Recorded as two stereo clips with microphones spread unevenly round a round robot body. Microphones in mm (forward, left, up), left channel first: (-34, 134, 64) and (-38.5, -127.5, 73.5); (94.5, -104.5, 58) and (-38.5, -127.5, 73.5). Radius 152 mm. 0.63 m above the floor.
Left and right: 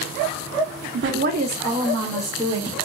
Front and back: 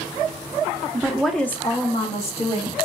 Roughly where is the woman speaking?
Right.